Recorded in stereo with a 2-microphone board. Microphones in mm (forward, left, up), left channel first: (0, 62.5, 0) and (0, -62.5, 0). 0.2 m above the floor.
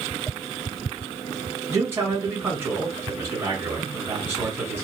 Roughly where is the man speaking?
Centre.